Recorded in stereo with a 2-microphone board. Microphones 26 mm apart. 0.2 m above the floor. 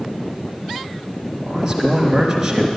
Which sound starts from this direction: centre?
A man speaking, at 1.4 s.